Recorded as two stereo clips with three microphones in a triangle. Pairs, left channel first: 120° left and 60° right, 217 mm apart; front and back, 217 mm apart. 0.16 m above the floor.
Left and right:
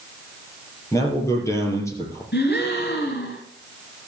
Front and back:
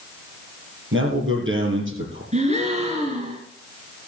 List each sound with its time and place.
0.9 s a man speaking: 165° right, 4.5 m
2.3 s a gasp: 130° left, 2.5 m